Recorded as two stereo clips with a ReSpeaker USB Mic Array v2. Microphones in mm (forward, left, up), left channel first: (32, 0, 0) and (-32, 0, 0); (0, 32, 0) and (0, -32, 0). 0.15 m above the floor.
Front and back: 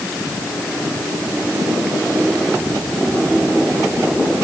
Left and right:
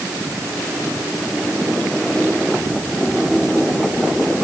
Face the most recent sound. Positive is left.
No sound to turn to.